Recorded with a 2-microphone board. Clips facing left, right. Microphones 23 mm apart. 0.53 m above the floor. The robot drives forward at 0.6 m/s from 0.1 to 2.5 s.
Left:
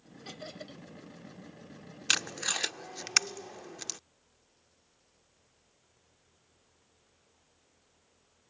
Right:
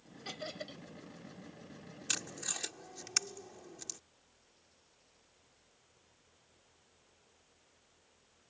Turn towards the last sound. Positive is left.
turn(degrees=50)  # may be behind; listen again after turning